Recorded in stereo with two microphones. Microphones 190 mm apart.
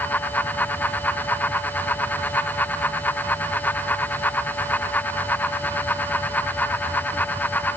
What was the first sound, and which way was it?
Only background noise.